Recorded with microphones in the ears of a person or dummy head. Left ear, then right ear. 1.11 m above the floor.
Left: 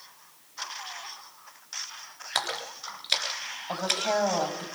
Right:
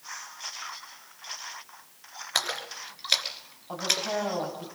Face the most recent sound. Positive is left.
turn(degrees=50)  # may be behind; listen again after turning